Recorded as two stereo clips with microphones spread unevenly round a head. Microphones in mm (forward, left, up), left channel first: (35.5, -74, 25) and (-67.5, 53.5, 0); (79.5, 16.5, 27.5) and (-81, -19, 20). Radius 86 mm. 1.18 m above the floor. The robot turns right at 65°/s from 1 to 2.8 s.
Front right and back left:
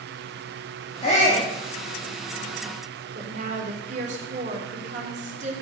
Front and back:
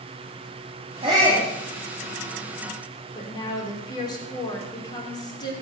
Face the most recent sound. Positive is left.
turn(degrees=80)